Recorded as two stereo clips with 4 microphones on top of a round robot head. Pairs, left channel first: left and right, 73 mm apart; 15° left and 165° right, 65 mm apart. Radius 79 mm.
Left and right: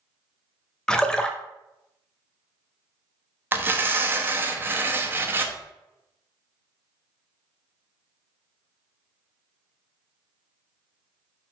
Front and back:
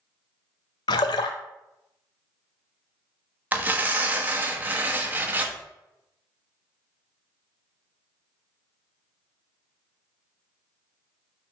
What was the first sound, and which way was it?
A splash, 10° left.